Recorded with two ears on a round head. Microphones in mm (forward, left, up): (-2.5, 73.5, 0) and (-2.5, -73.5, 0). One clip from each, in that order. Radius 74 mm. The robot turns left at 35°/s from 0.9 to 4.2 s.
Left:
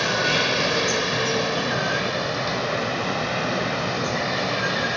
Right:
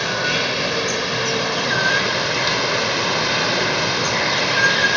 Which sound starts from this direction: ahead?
Running water, at 0.0 s.